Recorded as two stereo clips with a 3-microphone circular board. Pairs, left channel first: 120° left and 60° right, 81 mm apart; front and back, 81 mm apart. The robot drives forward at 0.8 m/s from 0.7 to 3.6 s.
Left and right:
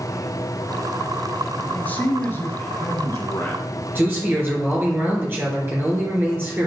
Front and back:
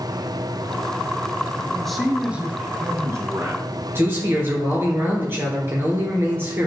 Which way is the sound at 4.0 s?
120° right.